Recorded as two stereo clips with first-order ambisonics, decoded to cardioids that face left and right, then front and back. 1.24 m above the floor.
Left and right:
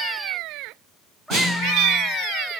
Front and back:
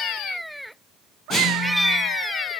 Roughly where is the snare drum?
Ahead right.